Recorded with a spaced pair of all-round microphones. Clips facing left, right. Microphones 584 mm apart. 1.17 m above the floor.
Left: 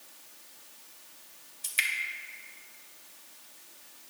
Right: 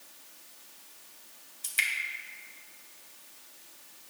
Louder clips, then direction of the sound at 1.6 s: Even; 10° left (ahead or behind).